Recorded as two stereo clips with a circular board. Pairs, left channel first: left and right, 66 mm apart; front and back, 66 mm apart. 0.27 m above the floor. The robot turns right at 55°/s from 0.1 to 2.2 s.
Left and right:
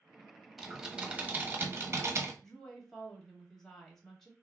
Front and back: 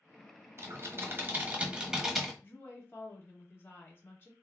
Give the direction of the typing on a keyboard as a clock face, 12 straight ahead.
6 o'clock.